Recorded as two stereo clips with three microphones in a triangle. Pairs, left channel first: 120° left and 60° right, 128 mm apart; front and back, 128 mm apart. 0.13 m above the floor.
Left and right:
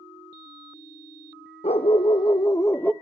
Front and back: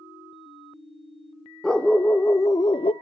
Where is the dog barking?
85° left, 1.3 m; by 2.9 s 40° left, 0.7 m.